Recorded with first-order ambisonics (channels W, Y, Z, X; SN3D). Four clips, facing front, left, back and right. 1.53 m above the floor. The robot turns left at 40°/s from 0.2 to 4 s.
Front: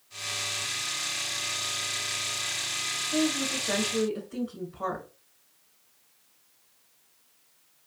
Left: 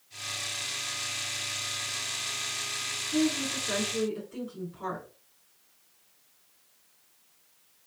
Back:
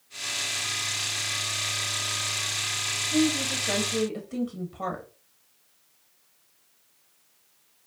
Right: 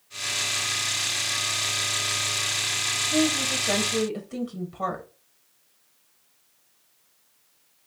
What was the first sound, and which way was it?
A woman speaking, 90° right.